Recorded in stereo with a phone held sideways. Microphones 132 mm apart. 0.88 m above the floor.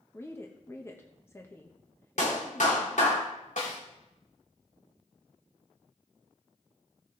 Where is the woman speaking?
20° left (ahead or behind), 1.0 m.